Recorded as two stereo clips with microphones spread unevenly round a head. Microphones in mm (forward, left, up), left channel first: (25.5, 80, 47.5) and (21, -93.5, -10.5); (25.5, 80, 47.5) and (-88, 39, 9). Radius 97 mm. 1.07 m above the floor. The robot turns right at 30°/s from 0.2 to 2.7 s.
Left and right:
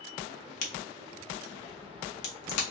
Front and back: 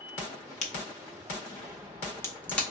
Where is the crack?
45° left, 1.0 m; by 2.7 s 105° left, 1.0 m.